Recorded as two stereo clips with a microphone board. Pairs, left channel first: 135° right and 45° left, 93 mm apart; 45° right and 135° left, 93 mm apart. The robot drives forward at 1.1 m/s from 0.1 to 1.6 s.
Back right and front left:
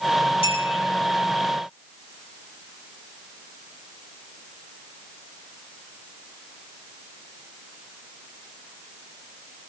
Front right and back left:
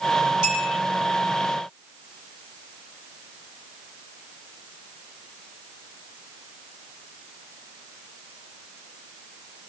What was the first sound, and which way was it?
A clink, 140° right.